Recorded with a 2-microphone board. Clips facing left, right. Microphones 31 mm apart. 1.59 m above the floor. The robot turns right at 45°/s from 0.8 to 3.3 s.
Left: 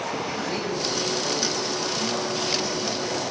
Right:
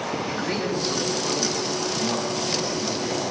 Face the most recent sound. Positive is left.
turn(degrees=-5)